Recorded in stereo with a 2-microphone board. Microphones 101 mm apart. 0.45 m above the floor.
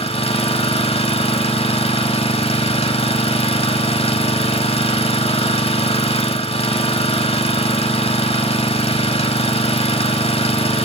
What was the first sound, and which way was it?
An engine running, 65° left (ahead or behind).